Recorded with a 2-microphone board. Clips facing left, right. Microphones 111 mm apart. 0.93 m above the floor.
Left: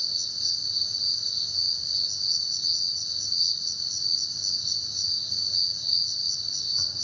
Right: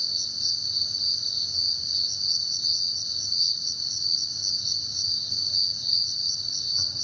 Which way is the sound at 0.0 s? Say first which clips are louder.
Right 1 dB; 5° left (ahead or behind).